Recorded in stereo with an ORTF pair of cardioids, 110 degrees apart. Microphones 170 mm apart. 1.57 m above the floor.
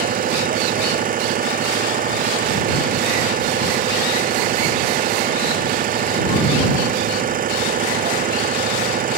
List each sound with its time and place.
0.0 s an engine running: 55° right